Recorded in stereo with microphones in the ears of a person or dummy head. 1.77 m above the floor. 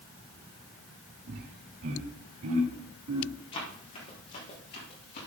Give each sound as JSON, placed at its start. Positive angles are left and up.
{"t": 1.3, "sound": "laughter", "side_deg": -65, "distance_m": 3.5}
{"t": 3.5, "sound": "running footsteps", "side_deg": 30, "distance_m": 3.0}